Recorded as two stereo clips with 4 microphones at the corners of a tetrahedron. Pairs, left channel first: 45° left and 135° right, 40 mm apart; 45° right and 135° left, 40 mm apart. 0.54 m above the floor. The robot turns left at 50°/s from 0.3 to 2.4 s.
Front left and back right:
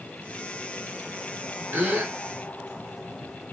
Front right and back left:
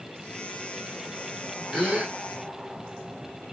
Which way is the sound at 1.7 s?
145° right.